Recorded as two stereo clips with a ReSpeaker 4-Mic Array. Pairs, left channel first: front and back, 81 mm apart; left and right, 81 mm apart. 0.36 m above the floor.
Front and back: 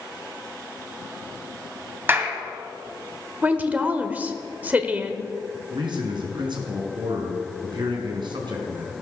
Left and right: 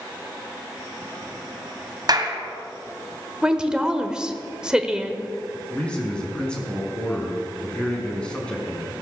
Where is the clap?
120° right, 2 m.